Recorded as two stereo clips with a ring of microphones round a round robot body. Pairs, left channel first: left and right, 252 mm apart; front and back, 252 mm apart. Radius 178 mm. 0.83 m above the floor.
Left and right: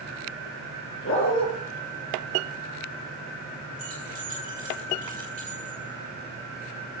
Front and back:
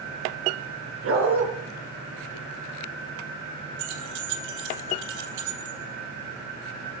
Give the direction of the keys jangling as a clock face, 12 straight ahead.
5 o'clock.